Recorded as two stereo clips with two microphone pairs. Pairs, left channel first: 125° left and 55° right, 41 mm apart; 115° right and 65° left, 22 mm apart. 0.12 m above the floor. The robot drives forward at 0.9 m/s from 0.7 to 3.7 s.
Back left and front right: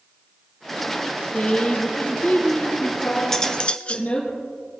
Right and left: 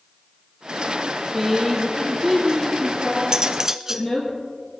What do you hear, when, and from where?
1.3 s a woman speaking: 125° left, 1.1 m; by 4.3 s 170° left, 2.5 m
3.3 s cutlery clinking: 60° left, 0.8 m; by 4.1 s 100° left, 0.8 m